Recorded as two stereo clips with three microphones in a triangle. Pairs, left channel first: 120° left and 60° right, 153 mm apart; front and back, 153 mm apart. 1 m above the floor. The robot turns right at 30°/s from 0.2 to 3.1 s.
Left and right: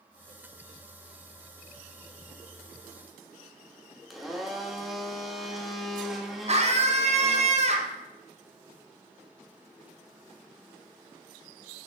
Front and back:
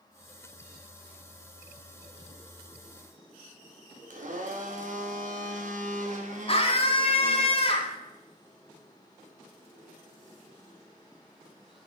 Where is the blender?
150° right, 1.1 m.